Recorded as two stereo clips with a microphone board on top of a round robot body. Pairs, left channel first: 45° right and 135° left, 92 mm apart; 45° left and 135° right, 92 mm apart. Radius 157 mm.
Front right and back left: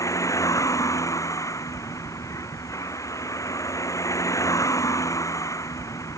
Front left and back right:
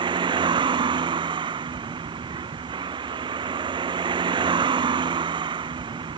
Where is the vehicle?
100° right.